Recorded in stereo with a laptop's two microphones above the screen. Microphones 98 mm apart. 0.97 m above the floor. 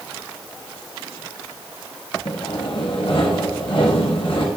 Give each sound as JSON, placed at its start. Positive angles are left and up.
{"t": 2.2, "sound": "sawing", "side_deg": 60, "distance_m": 1.9}